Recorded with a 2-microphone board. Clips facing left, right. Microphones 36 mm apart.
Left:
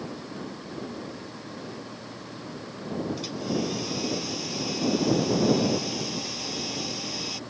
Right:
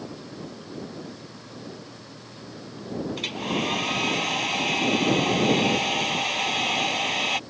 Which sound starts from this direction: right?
A hair dryer, at 3.2 s.